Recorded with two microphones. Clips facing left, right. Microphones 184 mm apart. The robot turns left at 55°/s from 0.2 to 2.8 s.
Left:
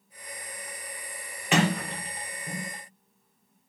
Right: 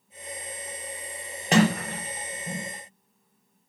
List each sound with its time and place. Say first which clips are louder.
1.5 s a sliding door: right 4 dB; 40° right (ahead or behind), 0.7 m; by 2.7 s 50° right (ahead or behind), 0.7 m